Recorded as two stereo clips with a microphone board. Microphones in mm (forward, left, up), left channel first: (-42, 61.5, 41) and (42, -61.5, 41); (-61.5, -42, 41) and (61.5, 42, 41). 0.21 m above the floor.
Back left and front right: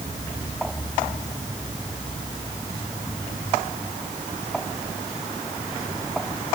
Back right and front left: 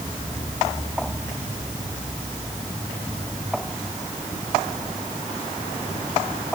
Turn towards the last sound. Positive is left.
No sound to turn to.